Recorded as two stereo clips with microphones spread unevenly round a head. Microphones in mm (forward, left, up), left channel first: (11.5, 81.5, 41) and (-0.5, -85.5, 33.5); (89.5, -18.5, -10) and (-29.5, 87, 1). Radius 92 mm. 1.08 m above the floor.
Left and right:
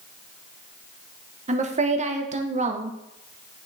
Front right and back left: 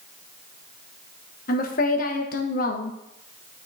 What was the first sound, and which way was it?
A woman speaking, 60° right.